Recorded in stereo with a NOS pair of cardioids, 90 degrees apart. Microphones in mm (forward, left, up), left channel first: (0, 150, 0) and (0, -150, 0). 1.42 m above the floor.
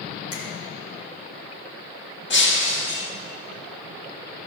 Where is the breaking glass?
40° left, 1.8 m.